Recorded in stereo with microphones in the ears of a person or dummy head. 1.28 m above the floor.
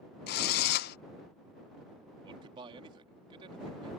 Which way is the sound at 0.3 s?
60° left (ahead or behind).